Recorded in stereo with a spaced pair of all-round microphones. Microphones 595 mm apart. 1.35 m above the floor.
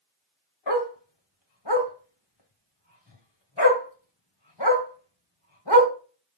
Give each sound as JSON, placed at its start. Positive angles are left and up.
{"t": 0.7, "sound": "a dog barking", "side_deg": 45, "distance_m": 2.0}